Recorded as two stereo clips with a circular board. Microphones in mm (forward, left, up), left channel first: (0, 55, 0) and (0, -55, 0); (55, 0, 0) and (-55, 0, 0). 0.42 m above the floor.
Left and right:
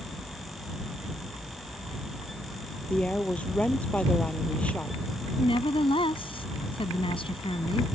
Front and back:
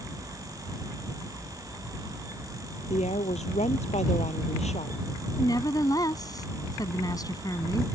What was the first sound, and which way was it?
A woman speaking, 10° left.